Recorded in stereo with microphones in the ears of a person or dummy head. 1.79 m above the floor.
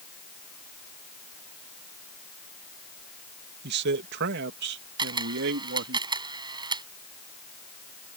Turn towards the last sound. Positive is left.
turn(degrees=-25)  # may be behind; listen again after turning